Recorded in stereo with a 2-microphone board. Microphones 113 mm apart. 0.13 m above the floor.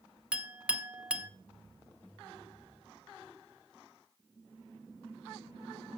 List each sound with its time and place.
0.3 s a clink: 10° right (ahead or behind), 0.8 m